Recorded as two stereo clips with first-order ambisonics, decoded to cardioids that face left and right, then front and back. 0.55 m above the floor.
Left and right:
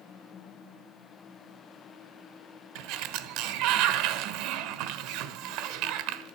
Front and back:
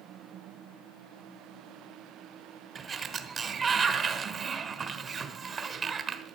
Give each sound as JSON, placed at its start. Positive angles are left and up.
{"t": 2.8, "sound": "a sliding door", "azimuth_deg": -110, "distance_m": 1.1}